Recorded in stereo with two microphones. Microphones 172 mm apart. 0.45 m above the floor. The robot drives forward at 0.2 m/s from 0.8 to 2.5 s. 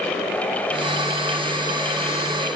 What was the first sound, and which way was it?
Only background noise.